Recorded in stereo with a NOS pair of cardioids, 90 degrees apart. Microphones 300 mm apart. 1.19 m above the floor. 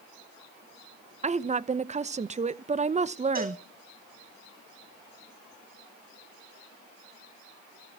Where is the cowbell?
30° right, 5 m.